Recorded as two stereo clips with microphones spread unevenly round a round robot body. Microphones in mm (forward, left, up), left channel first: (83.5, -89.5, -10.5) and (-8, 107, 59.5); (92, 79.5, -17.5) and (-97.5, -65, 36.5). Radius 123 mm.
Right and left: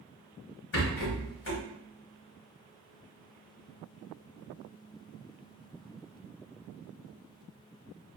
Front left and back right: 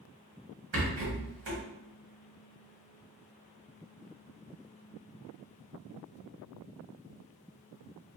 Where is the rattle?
100° right, 1.1 m.